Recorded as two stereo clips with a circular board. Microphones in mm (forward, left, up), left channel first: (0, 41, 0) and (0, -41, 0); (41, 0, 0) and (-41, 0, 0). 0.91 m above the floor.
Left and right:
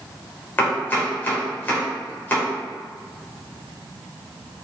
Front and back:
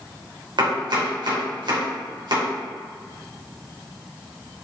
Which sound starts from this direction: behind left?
Chopping, at 0.6 s.